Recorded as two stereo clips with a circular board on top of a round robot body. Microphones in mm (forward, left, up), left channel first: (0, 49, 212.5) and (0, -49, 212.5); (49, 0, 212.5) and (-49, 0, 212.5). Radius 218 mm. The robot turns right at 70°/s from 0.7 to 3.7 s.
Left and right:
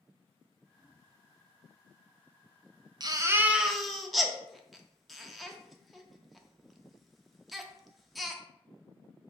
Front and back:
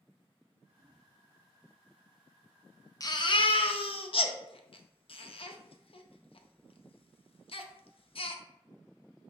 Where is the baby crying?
50° right, 0.7 m; by 8.4 s straight ahead, 0.7 m.